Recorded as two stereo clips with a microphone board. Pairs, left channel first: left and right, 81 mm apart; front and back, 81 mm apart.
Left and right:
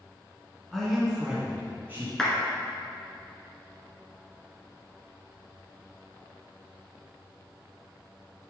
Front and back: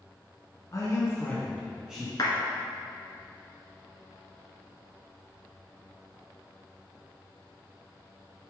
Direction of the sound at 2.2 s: 5° left.